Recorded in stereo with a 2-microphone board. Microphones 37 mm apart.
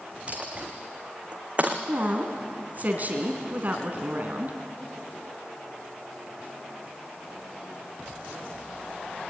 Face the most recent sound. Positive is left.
turn(degrees=-40)  # may be behind; listen again after turning